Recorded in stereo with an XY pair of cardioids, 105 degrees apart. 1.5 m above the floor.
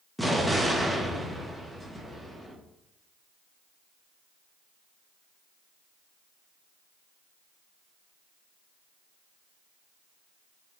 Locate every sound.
0.2 s an explosion: 5° right, 2 m